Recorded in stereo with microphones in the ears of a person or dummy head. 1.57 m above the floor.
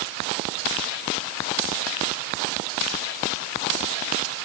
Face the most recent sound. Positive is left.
No sound to turn to.